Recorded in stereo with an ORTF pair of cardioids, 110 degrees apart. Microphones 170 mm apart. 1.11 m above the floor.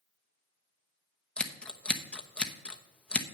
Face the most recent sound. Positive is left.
turn(degrees=5)